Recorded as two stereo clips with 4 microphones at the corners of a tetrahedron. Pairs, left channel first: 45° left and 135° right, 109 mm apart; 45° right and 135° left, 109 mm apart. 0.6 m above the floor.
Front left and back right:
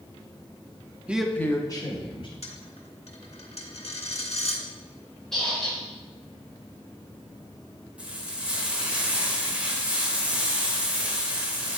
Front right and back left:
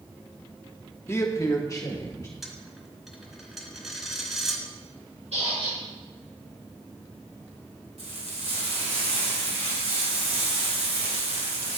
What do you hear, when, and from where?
1.1 s a man speaking: 70° right, 0.6 m; by 2.3 s 15° left, 1.3 m
2.4 s a dropped coin: 45° left, 1.1 m
5.3 s a squeak: 130° left, 3.5 m
8.0 s frying: 145° left, 1.6 m